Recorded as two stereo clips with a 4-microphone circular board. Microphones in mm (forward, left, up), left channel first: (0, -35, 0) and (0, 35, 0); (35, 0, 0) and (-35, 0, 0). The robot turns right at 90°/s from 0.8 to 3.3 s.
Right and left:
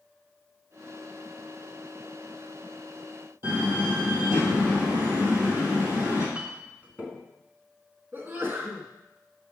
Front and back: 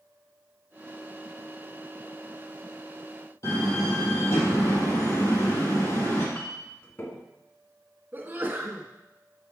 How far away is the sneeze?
About 1.5 m.